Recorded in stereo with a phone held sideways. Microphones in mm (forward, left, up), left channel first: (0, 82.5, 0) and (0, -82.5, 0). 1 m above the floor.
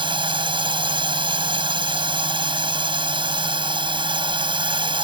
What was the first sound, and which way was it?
A drone, 30° right (ahead or behind).